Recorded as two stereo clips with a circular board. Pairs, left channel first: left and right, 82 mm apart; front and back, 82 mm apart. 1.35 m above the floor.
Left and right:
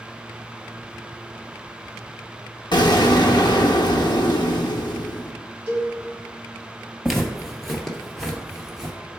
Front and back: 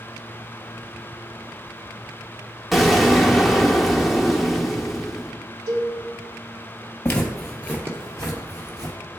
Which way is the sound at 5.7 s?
155° right.